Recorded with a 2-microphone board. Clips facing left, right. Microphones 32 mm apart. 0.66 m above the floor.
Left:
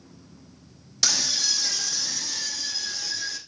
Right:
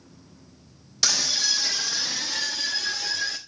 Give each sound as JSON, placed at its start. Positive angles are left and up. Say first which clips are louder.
{"t": 1.0, "sound": "a scream", "louder": "right 1 dB", "side_deg": -5, "distance_m": 1.0}